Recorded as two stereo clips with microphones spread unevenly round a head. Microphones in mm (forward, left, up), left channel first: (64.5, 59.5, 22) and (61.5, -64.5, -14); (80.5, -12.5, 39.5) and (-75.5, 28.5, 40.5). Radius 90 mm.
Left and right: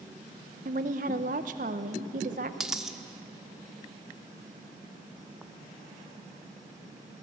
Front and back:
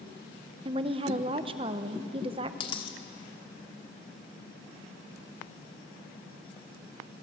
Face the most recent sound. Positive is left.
turn(degrees=20)